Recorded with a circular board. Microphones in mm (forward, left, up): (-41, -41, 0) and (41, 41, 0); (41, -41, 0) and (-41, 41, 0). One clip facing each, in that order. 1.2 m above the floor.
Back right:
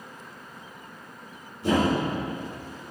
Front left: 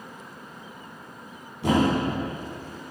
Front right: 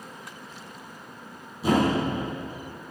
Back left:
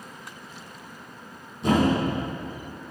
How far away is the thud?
About 4.5 m.